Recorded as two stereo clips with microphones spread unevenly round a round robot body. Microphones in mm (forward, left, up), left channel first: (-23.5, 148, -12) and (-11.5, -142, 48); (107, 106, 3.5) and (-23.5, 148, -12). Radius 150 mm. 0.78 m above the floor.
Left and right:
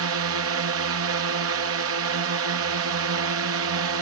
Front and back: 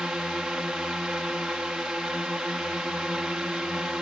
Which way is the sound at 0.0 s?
115° right.